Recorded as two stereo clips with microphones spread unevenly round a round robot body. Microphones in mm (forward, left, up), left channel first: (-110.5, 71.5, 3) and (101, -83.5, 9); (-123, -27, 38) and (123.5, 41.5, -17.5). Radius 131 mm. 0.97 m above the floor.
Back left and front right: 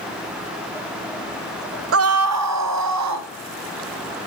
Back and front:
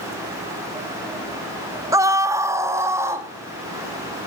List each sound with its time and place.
1.9 s a scream: 45° right, 0.6 m; by 3.3 s 60° right, 2 m